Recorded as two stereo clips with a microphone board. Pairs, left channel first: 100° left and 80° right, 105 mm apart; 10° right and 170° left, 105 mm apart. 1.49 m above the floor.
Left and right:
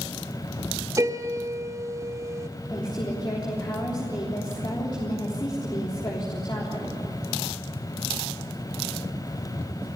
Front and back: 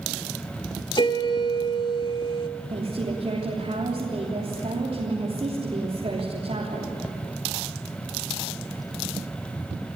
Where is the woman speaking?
150° left, 3.5 m.